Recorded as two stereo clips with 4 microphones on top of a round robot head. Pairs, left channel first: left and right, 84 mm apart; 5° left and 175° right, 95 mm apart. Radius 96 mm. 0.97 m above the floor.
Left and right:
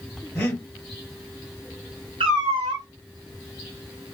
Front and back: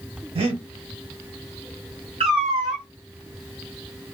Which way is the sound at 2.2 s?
130° right.